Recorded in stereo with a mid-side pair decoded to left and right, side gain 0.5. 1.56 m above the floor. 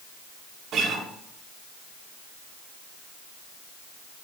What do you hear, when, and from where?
0.7 s a guitar: 65° right, 1.9 m